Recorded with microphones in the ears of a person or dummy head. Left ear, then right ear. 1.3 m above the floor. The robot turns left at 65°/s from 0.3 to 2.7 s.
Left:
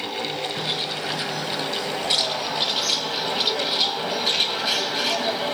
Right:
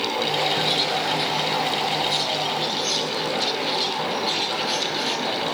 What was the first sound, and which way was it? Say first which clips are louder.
A bird: right 5 dB; 175° left.